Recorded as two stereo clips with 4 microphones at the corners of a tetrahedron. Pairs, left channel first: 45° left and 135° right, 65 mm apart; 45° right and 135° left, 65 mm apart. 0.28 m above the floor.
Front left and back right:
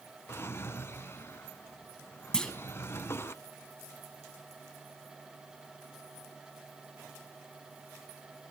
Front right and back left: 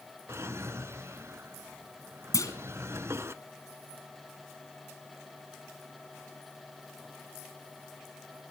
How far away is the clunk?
About 2 m.